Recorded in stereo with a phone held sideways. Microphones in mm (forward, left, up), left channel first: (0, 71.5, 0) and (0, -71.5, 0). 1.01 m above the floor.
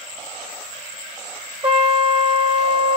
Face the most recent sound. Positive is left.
turn(degrees=-40)  # may be behind; listen again after turning